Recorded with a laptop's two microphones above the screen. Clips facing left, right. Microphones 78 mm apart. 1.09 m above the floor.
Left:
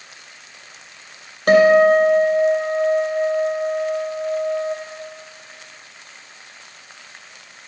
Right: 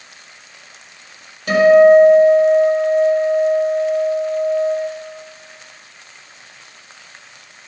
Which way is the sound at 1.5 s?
60° left (ahead or behind).